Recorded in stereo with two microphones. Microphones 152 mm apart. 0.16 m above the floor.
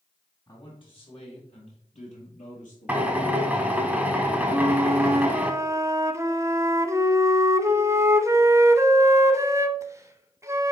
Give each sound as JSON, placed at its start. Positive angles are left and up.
{"t": 0.5, "sound": "a man speaking", "side_deg": 35, "distance_m": 3.5}
{"t": 2.9, "sound": "a drill", "side_deg": -10, "distance_m": 0.9}
{"t": 4.5, "sound": "a flute", "side_deg": -20, "distance_m": 0.5}